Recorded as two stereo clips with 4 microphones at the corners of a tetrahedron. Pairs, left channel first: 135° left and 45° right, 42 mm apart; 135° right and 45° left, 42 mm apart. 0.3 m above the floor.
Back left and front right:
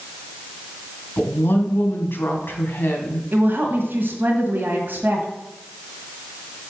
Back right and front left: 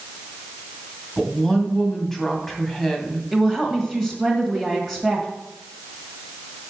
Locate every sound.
1.2 s a woman speaking: 145° left, 2.5 m
3.3 s a woman speaking: 30° right, 1.7 m